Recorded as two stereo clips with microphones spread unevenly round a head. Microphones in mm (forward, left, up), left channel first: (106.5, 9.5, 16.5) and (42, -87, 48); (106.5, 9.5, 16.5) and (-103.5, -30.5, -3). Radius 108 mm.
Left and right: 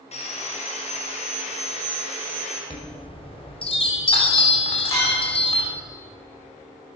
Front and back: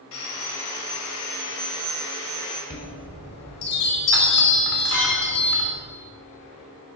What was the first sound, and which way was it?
Sawing, 40° left.